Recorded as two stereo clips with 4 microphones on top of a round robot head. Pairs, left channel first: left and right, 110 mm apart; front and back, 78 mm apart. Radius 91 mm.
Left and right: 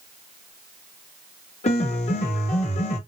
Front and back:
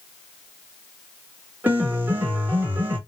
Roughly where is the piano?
Behind left.